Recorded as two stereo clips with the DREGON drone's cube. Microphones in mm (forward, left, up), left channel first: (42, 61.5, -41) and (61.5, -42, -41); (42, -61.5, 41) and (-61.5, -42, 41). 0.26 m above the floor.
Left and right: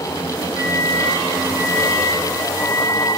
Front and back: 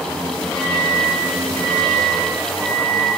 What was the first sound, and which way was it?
A microwave, 10° right.